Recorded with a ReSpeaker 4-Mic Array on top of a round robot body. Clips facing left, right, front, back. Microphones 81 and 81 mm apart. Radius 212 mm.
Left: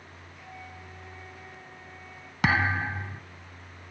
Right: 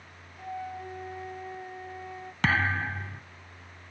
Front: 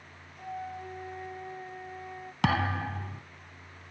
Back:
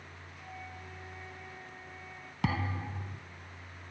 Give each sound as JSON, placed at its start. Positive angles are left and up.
{"t": 0.4, "sound": "a flute", "azimuth_deg": -45}
{"t": 2.4, "sound": "a thud", "azimuth_deg": 10}